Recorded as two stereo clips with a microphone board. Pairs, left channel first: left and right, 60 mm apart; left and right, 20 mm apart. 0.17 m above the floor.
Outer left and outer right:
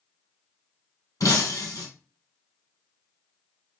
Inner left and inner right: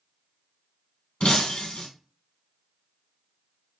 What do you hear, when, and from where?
1.2 s breaking glass: 75° left (ahead or behind), 2 m